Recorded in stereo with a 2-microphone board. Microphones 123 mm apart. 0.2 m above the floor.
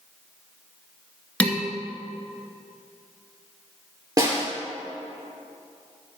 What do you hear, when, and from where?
1.4 s dishes clattering: 10° left (ahead or behind), 1.8 m
4.2 s a snare drum: 30° right (ahead or behind), 4 m